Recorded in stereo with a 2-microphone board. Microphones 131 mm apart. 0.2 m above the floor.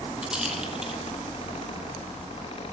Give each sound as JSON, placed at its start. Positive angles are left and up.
{"t": 0.2, "sound": "a rattle", "side_deg": -5, "distance_m": 2.5}